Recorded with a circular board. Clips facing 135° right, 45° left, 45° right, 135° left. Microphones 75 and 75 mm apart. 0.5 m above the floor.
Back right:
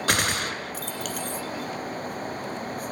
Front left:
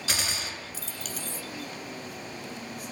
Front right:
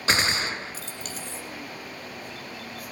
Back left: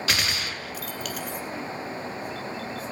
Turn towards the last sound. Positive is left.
turn(degrees=-105)